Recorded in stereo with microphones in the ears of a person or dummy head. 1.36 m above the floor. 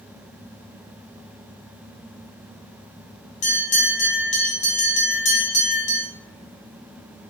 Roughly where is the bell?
Left.